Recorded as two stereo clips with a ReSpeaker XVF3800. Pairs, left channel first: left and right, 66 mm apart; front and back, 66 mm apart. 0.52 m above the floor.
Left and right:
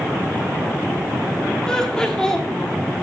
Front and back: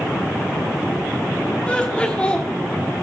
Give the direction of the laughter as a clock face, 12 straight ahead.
11 o'clock.